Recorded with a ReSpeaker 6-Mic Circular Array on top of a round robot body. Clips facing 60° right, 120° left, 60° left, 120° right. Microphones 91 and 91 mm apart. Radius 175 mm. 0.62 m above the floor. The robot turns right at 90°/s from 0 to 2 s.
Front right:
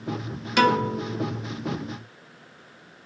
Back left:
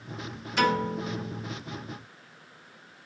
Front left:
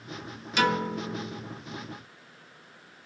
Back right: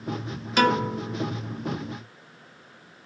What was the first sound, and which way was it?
A piano, 75° right.